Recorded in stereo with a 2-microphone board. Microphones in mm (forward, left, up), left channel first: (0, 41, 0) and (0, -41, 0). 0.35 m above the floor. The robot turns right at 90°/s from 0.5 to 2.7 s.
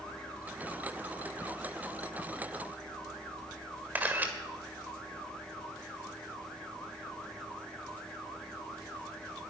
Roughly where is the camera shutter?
Right.